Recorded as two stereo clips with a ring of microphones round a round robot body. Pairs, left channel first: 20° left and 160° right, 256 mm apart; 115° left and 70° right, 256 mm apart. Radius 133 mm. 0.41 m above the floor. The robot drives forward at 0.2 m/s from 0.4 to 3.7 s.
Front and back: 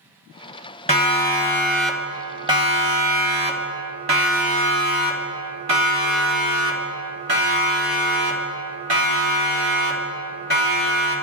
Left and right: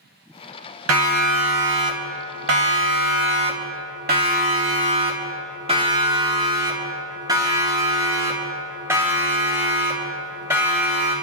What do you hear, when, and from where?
0.9 s a siren: 45° right, 2 m; by 11.1 s 155° right, 7 m